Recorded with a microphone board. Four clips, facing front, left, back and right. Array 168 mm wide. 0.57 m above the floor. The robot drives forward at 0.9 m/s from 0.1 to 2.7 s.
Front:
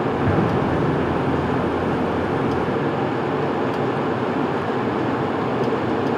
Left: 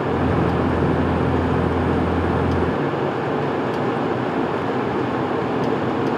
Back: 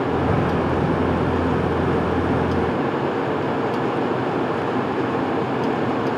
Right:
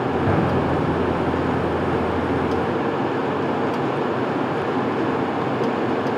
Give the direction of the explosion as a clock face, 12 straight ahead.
1 o'clock.